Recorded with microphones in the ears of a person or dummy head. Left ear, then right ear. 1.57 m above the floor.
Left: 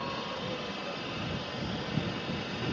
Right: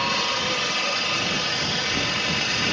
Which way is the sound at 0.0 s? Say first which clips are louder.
Right 13 dB; 60° right (ahead or behind).